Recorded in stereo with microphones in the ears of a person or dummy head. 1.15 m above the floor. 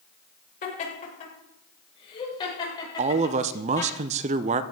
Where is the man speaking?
30° right (ahead or behind), 0.5 m.